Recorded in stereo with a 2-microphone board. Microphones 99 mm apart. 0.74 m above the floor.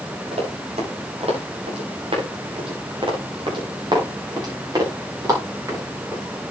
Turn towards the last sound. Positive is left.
turn(degrees=-30)  # may be behind; listen again after turning